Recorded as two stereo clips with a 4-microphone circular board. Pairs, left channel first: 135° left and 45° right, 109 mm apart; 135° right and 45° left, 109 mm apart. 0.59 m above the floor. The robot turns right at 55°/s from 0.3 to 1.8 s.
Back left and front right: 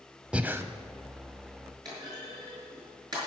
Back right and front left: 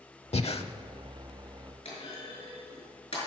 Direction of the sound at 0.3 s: 125° right.